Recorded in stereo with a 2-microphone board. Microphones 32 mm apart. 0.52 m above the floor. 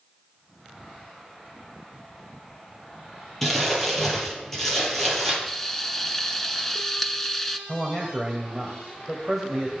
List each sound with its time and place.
3.4 s crumpling: 10° left (ahead or behind), 5.5 m
5.5 s frying: 15° left (ahead or behind), 0.9 m
7.7 s a man speaking: centre (ahead or behind), 2.5 m